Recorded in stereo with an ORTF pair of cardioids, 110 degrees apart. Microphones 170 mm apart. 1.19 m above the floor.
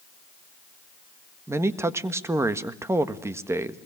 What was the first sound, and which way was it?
A man speaking, 15° right.